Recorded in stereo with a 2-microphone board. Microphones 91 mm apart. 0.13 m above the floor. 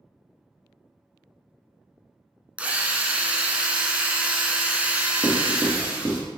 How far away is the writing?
About 1.5 m.